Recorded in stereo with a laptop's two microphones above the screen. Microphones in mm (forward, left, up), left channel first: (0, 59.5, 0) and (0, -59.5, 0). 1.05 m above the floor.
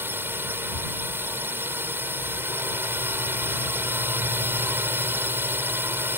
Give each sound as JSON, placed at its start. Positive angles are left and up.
{"t": 0.0, "sound": "a drone", "side_deg": -15}